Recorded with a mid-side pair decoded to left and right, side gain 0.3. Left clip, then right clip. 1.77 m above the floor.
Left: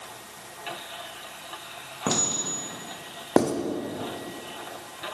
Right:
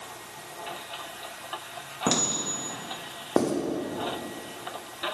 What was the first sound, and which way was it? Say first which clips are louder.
A clink: even; 10° right.